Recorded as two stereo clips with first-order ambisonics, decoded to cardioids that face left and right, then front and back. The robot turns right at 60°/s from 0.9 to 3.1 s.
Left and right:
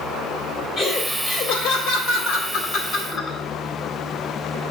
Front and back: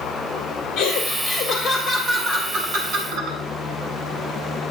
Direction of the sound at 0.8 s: 35° left.